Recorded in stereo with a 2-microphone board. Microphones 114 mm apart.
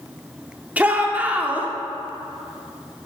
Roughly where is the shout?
Centre.